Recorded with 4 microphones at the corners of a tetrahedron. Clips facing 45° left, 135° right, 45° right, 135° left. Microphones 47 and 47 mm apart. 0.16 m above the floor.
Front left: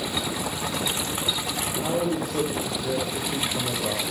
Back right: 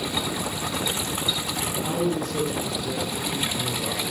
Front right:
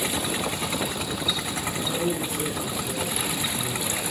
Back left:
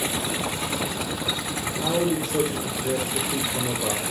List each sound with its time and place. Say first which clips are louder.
1.8 s a man speaking: even, back left 5 dB; 120° left, 8 m